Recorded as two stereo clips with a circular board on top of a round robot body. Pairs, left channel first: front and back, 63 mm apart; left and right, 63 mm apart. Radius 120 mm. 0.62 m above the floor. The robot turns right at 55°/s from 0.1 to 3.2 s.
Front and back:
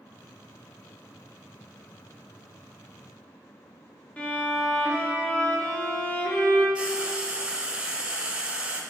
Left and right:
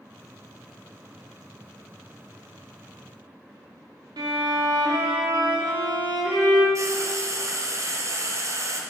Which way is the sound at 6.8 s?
110° right.